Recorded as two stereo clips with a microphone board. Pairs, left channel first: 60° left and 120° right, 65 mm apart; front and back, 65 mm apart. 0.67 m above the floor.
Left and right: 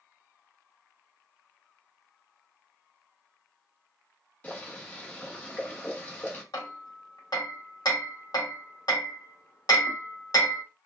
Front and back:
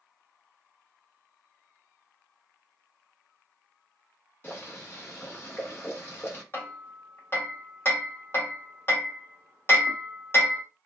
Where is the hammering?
50° left, 1.0 m.